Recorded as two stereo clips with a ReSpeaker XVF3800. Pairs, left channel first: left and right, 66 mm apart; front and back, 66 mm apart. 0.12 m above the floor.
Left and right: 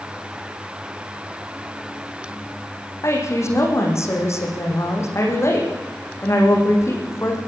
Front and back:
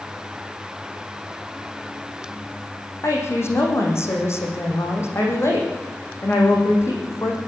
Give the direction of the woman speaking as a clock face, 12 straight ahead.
10 o'clock.